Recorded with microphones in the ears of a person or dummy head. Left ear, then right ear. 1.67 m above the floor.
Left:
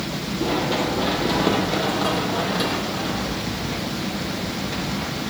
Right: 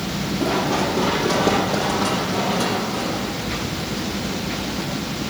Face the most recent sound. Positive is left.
turn(degrees=30)  # may be behind; listen again after turning